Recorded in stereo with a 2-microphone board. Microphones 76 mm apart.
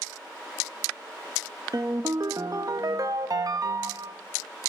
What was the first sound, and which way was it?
A ringtone, 50° right (ahead or behind).